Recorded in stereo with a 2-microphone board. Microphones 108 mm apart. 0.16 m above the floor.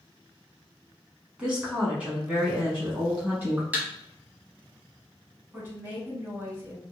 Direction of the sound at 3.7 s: 15° right (ahead or behind).